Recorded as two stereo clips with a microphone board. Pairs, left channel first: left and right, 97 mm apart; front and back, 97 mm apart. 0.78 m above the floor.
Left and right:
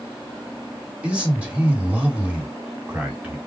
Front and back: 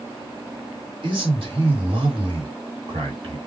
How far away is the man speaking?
About 2 m.